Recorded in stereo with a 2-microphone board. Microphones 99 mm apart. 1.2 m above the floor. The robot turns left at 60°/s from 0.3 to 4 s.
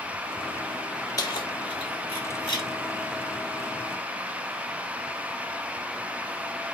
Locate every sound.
1.2 s keys jangling: 40° left (ahead or behind), 2.5 m; by 2.7 s 50° left (ahead or behind), 2.5 m